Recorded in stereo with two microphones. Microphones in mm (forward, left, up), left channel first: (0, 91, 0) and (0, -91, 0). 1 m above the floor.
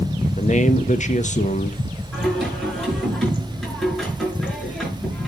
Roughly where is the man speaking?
Left.